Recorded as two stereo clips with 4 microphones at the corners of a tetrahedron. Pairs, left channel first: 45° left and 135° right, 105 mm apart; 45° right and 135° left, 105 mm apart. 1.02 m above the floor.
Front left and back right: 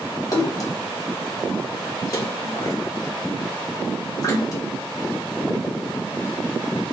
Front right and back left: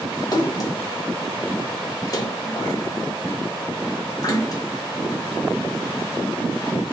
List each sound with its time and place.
0.3 s a splash: straight ahead, 1.2 m